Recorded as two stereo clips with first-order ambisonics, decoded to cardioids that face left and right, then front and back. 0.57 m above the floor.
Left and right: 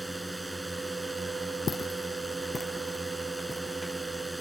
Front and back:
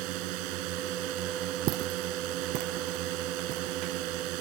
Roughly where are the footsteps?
Behind left.